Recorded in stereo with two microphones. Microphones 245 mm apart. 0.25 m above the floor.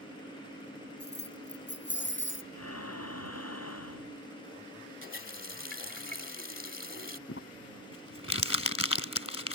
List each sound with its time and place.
1.0 s keys jangling: 40° left (ahead or behind); by 2.4 s 50° left (ahead or behind)
2.5 s breathing: 75° left (ahead or behind)
5.0 s a running tap: 50° left (ahead or behind)
7.3 s crumpling: 60° left (ahead or behind)